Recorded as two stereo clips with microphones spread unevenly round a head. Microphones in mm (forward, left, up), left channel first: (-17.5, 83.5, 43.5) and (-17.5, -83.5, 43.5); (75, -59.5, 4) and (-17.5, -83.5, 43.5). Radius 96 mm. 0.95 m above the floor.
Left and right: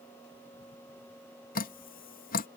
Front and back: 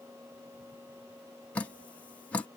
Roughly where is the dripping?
Left.